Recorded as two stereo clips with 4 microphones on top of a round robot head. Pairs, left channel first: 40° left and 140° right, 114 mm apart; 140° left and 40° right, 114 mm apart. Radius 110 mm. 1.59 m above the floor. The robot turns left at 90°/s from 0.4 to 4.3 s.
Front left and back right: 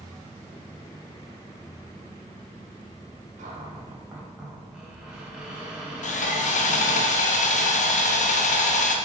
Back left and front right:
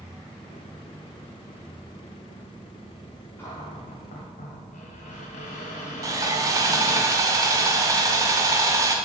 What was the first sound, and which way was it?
A cupboard door, 145° right.